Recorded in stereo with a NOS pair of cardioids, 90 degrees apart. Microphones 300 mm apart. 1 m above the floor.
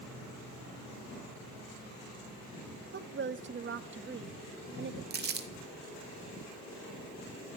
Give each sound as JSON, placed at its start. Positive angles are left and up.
{"t": 2.9, "sound": "a woman speaking", "azimuth_deg": -35, "distance_m": 1.2}
{"t": 5.1, "sound": "crumpling", "azimuth_deg": -30, "distance_m": 1.7}